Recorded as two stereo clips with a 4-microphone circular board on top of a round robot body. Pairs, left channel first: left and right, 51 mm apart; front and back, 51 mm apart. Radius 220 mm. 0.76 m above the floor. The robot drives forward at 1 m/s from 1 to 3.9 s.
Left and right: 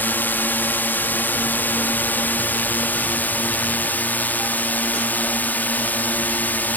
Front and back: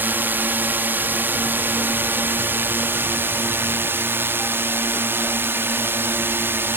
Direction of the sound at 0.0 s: 135° left.